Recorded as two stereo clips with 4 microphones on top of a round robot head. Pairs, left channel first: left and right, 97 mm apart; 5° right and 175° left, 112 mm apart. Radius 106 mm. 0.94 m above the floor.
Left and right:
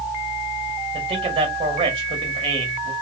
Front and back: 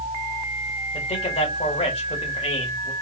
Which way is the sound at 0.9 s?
50° right.